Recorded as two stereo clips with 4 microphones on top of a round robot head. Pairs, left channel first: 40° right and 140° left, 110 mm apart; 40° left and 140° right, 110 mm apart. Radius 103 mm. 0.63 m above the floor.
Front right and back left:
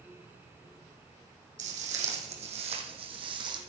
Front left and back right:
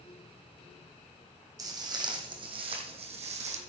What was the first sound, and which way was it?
Footsteps, 160° left.